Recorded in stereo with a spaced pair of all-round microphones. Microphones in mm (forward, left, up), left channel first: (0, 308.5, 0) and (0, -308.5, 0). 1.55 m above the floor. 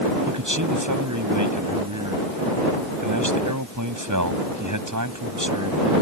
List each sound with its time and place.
0.3 s a man speaking: 30° right (ahead or behind)